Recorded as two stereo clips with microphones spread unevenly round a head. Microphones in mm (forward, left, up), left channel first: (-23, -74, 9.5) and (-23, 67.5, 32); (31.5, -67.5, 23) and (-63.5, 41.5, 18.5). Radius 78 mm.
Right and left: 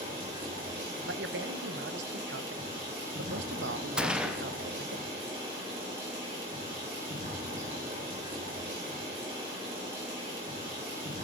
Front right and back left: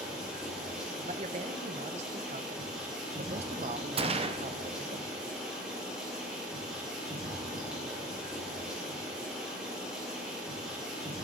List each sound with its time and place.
0.0 s running water: 45° left, 4.5 m
1.1 s a man speaking: 80° left, 0.7 m
4.0 s a gunshot: 175° left, 1.0 m